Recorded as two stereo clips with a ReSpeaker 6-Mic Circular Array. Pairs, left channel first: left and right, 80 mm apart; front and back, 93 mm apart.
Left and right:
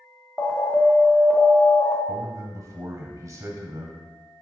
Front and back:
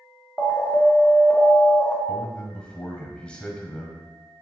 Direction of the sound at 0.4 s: 45° left.